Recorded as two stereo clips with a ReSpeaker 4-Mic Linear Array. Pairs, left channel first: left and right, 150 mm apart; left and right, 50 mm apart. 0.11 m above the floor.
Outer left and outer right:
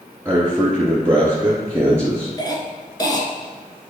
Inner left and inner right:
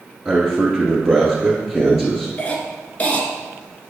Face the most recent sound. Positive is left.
turn(degrees=30)  # may be behind; listen again after turning